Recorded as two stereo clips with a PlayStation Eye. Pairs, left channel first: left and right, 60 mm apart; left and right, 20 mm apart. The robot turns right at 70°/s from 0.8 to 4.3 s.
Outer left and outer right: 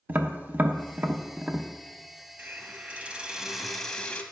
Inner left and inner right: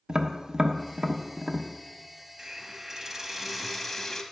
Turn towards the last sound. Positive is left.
turn(degrees=40)